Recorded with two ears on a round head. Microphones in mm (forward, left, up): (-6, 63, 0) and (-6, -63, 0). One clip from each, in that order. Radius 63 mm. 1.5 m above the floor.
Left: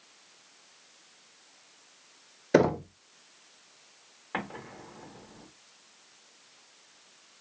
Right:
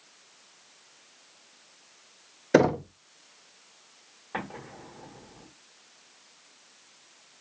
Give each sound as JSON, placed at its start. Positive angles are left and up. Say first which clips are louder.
{"t": 2.5, "sound": "knocking", "louder": "right 2 dB", "side_deg": -10, "distance_m": 0.6}
{"t": 4.3, "sound": "an explosion", "louder": "even", "side_deg": 30, "distance_m": 2.5}